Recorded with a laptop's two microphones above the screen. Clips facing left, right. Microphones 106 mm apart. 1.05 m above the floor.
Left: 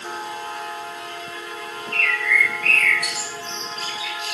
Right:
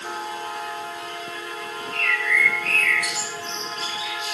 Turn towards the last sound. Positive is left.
turn(degrees=70)  # may be behind; listen again after turning